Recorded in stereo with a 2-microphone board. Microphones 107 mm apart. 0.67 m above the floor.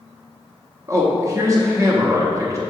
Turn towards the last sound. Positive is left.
turn(degrees=-30)  # may be behind; listen again after turning